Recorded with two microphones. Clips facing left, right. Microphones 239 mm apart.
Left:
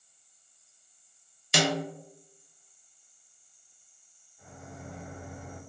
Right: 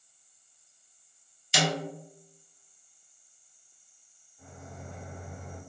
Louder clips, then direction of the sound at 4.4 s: Left 1 dB; centre (ahead or behind).